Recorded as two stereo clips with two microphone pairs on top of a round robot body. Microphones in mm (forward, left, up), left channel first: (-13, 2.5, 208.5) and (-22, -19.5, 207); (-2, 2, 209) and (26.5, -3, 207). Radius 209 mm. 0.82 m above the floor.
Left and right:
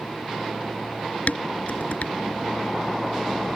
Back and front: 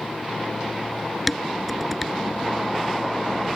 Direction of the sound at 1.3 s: 85° left.